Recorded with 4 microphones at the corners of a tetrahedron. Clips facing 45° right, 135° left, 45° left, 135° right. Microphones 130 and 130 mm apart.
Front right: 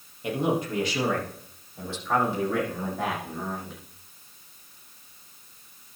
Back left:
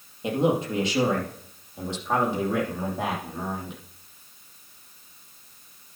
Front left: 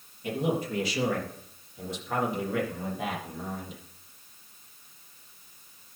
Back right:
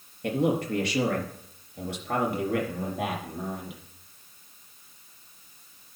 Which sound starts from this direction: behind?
A man speaking, at 0.2 s.